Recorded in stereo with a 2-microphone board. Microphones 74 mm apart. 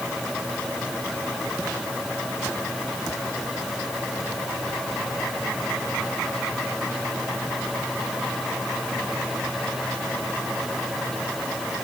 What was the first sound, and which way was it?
Only background noise.